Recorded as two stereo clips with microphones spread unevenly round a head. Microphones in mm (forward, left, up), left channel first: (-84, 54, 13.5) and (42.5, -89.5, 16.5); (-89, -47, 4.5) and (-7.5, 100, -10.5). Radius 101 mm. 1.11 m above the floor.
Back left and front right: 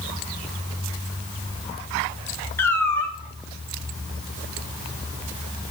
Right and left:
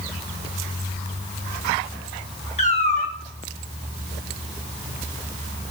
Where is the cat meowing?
150° right, 1.3 m.